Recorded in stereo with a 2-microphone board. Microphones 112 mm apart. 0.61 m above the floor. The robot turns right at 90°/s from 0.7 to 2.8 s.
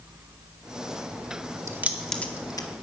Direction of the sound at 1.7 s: 25° right (ahead or behind).